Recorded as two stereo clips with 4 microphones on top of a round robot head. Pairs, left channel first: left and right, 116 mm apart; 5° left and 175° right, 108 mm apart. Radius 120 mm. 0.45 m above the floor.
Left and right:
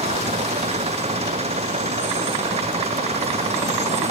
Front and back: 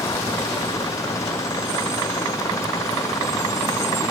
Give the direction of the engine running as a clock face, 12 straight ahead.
2 o'clock.